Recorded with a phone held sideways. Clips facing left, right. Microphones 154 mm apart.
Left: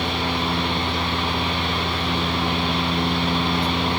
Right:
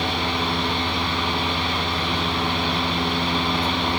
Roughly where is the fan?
Centre.